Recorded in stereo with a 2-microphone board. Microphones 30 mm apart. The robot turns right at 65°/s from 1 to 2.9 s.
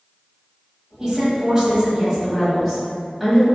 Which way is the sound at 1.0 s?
10° right (ahead or behind).